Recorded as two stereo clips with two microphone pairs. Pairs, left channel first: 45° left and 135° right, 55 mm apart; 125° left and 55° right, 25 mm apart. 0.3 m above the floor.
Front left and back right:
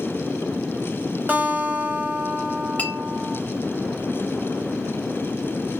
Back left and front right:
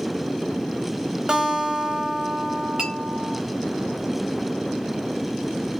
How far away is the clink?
About 0.6 m.